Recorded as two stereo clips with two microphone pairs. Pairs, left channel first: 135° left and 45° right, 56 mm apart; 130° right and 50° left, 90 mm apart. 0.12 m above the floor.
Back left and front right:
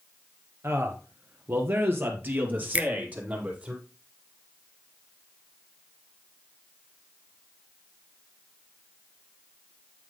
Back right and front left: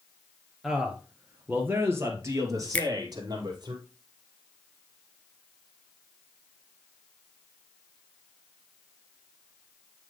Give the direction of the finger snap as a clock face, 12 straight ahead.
2 o'clock.